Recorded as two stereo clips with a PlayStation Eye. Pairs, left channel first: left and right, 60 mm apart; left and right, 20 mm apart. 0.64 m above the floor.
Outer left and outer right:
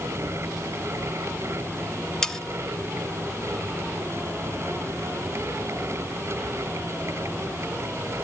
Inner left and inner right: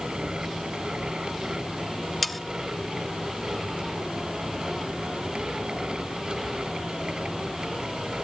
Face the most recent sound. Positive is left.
turn(degrees=10)  # may be behind; listen again after turning